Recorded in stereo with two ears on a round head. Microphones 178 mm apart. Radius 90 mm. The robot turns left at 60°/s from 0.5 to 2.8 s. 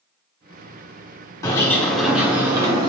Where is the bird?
15° left (ahead or behind), 1.0 m; by 2.9 s 20° right (ahead or behind), 1.0 m.